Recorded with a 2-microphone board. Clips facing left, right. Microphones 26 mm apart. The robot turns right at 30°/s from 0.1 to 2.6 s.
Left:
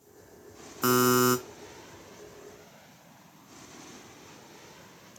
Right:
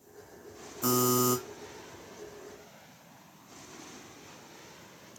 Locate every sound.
0.8 s a buzzer: 45° left (ahead or behind), 0.5 m; by 1.4 s 35° left (ahead or behind), 0.5 m